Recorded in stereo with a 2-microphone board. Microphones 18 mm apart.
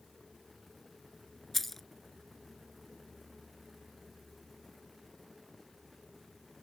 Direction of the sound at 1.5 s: 15° left (ahead or behind).